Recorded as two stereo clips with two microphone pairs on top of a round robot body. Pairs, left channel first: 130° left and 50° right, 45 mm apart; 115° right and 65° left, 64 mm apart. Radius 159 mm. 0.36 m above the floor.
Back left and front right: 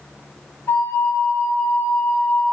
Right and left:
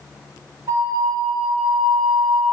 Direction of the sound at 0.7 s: 105° left.